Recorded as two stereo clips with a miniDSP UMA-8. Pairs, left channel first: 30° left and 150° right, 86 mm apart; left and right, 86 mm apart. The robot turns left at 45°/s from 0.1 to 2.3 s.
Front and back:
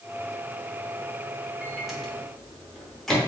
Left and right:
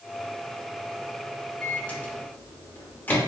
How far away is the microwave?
About 0.9 m.